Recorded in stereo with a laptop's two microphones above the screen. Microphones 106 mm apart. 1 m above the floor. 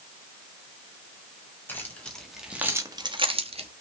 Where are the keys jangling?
20° left (ahead or behind), 1.7 m; by 3.7 s 80° right, 1.3 m.